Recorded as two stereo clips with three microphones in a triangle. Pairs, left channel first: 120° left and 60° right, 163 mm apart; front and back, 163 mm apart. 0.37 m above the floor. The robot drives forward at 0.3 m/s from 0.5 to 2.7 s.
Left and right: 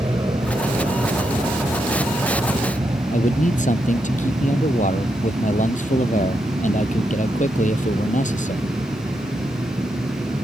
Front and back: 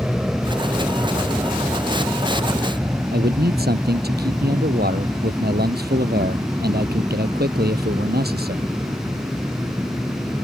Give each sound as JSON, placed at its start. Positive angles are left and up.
{"t": 0.0, "sound": "an aircraft", "azimuth_deg": -100}
{"t": 3.1, "sound": "a man speaking", "azimuth_deg": 160}